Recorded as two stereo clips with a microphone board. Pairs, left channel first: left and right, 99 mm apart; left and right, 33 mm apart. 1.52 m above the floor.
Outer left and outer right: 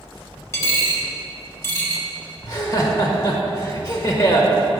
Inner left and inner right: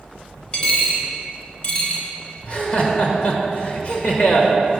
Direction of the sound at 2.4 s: 40° left (ahead or behind).